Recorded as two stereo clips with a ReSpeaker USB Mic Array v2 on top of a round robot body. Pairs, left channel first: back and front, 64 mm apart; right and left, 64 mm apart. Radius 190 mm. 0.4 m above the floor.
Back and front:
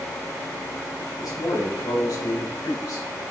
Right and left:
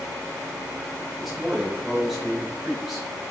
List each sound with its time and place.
1.2 s a man speaking: 175° left, 3 m